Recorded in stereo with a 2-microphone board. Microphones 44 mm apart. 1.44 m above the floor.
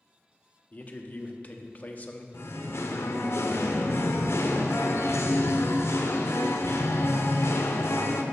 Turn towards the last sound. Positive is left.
turn(degrees=65)  # may be behind; listen again after turning